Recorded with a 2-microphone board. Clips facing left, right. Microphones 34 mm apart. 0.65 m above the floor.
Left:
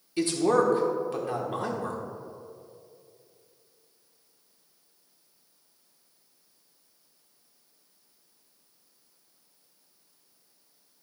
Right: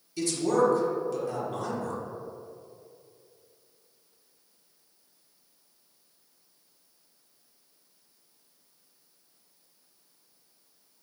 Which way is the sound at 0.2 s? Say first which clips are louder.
Left 2 dB; 35° left (ahead or behind).